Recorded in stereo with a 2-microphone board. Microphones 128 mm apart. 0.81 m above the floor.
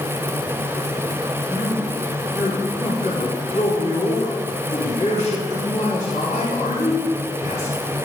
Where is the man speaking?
55° left (ahead or behind), 6 m.